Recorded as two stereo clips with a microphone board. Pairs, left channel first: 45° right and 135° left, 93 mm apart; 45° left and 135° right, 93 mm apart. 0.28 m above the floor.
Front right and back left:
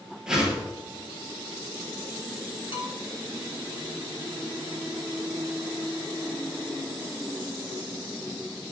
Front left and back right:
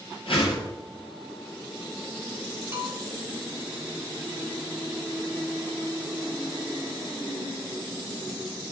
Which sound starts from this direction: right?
A bell, at 2.7 s.